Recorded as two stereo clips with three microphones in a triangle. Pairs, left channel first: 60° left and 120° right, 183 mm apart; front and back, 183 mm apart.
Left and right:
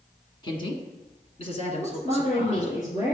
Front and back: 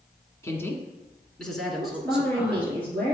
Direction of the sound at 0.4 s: 50° left.